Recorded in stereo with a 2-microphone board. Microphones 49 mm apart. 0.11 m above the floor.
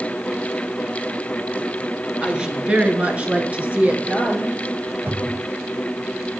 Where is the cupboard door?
45° right (ahead or behind), 2.0 m.